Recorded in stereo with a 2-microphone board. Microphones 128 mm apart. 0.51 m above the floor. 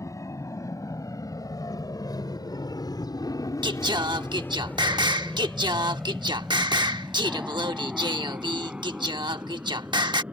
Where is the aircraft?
25° left (ahead or behind); by 10.3 s 10° right (ahead or behind).